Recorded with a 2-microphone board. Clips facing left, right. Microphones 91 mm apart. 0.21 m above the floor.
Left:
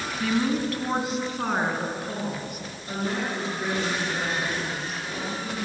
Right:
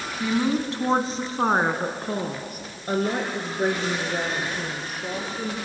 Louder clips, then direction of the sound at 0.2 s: Right 1 dB; 15° right (ahead or behind).